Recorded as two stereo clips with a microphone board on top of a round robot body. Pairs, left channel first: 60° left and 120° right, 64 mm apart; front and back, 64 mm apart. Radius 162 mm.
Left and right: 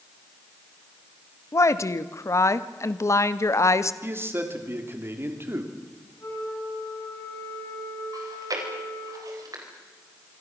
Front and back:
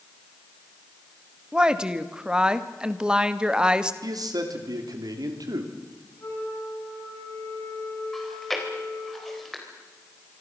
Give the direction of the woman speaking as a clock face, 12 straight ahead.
9 o'clock.